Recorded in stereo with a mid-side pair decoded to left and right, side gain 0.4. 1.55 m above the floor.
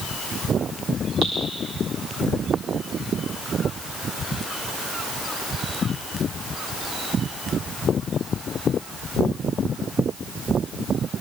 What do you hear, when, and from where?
1.2 s dripping: 60° right, 8.5 m